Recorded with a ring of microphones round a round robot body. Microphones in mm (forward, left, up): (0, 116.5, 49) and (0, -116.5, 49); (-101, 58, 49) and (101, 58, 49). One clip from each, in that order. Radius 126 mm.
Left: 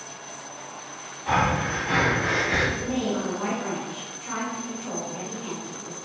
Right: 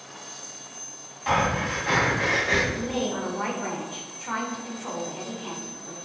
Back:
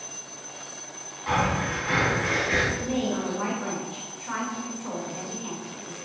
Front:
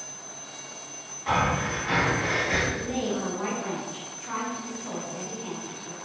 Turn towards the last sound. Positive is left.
turn(degrees=-115)